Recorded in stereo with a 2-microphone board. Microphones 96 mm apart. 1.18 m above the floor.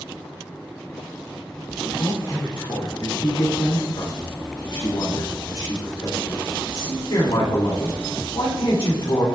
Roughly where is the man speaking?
Left.